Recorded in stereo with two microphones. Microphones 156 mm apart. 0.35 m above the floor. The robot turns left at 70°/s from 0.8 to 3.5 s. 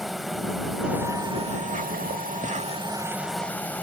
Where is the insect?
Straight ahead; by 3.8 s 170° left.